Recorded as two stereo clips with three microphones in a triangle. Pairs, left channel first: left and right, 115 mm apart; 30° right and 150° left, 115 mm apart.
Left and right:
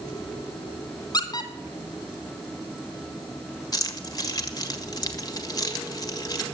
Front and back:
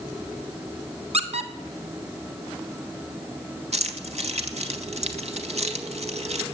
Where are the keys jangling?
145° left, 1.6 m.